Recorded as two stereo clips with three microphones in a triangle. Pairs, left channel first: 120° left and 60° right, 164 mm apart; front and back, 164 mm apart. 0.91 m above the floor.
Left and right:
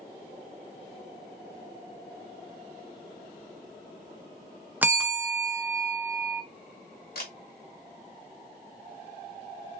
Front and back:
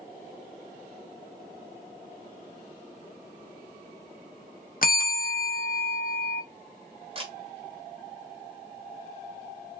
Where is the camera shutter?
130° left, 1.0 m.